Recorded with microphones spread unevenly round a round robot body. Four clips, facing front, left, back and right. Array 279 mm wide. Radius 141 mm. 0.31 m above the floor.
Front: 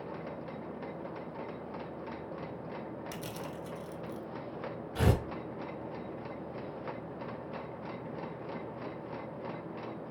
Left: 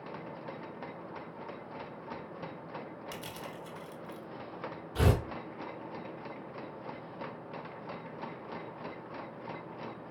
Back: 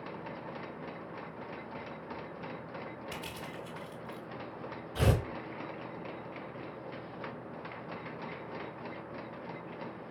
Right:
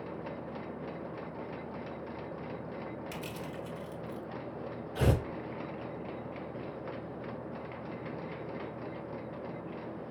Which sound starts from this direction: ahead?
Crushing, at 3.1 s.